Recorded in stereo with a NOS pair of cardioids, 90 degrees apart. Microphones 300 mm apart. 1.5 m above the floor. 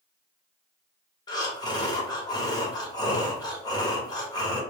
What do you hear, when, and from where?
1.3 s breathing: 15° left, 0.8 m